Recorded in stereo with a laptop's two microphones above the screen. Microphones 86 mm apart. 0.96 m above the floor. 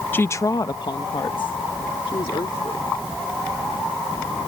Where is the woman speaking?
20° left (ahead or behind); by 2.9 s 80° left.